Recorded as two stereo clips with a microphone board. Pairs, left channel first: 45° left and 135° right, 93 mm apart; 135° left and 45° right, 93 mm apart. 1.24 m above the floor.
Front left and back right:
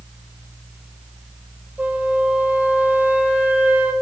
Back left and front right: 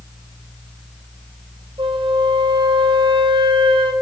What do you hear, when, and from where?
1.8 s a flute: 60° right, 4.5 m